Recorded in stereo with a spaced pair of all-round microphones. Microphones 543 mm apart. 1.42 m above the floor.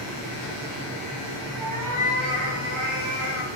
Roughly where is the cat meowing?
Right.